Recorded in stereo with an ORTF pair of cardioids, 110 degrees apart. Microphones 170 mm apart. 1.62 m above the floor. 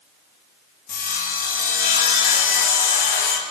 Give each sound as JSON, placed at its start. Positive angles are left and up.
{"t": 0.9, "sound": "sawing", "azimuth_deg": 65, "distance_m": 2.0}